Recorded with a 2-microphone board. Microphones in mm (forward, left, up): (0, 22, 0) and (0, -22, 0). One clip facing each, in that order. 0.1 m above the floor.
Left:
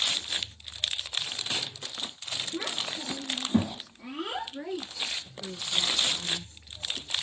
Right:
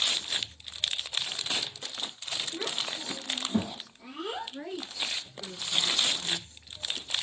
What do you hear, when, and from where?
2.5 s a child speaking: 20° left (ahead or behind), 1.1 m
4.5 s a woman speaking: 5° left (ahead or behind), 1.9 m